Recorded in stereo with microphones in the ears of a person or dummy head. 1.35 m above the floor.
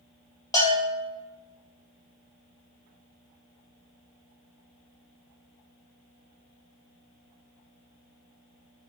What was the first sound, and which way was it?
A bell, 20° left (ahead or behind).